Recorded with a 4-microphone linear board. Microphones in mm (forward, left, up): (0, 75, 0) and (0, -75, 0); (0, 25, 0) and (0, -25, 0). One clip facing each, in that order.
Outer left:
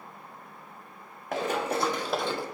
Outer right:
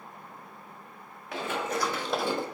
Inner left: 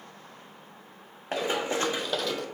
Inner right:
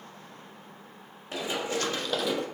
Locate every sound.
1.3 s running footsteps: 45° left (ahead or behind), 1.2 m; by 2.5 s 25° right (ahead or behind), 0.6 m